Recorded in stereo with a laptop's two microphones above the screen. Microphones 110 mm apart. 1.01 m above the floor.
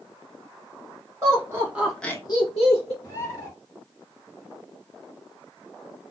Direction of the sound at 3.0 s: 35° left (ahead or behind).